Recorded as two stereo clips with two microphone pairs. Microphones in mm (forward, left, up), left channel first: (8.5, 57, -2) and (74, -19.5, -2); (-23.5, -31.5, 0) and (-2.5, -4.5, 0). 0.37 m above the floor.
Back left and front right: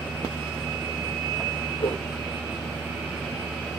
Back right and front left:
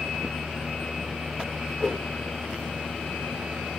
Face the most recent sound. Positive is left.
turn(degrees=155)